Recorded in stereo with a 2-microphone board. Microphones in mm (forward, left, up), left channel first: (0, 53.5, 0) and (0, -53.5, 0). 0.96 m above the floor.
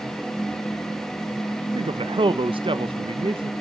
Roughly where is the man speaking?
Right.